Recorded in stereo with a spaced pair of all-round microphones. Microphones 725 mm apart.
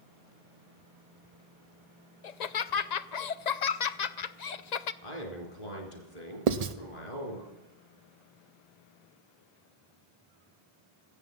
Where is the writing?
60° right (ahead or behind), 0.8 m.